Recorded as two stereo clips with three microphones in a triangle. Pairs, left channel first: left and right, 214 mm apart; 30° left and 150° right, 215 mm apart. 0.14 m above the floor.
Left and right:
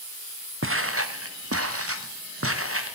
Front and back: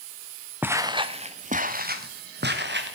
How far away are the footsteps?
About 0.9 m.